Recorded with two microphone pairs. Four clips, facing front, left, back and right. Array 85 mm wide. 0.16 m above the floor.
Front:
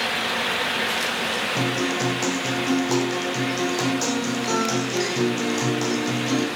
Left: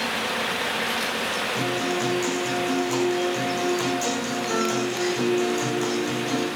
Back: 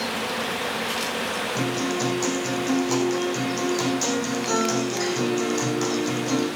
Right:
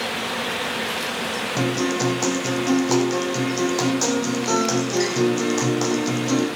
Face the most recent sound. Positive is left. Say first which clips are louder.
# right 5 dB, front 1 dB
turn(degrees=-80)